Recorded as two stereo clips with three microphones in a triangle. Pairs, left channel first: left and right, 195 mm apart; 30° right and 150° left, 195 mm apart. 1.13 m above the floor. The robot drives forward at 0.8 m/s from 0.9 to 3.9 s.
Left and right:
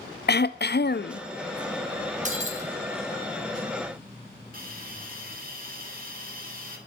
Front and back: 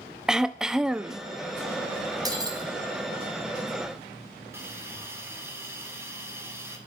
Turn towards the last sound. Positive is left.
turn(degrees=-130)